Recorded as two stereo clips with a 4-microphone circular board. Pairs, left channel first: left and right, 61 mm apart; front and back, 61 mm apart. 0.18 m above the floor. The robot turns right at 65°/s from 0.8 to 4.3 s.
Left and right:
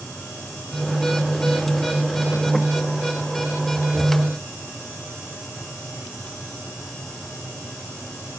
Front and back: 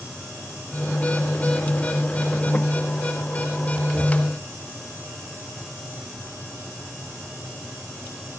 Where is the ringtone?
I don't hear a ringtone.